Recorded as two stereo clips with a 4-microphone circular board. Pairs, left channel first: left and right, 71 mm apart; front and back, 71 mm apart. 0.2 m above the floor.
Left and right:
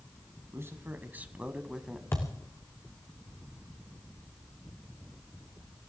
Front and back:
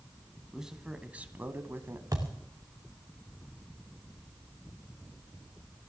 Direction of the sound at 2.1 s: 145° left.